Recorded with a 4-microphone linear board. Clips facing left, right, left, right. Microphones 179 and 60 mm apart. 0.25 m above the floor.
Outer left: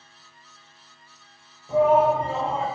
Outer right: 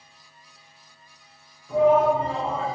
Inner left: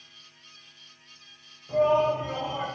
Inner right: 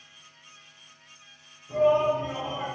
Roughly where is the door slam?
I don't hear a door slam.